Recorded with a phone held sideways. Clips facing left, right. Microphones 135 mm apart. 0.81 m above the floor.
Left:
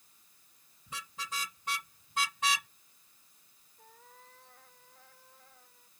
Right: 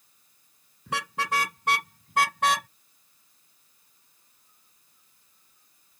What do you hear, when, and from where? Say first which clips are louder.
0.9 s a car horn: right 14 dB; 75° right (ahead or behind); by 2.7 s 60° right (ahead or behind)
3.8 s a cat meowing: left 16 dB; 90° left